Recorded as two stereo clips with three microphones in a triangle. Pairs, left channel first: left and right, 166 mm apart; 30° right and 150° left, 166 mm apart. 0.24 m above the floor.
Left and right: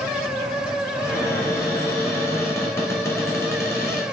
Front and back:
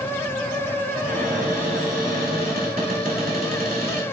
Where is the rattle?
I don't hear a rattle.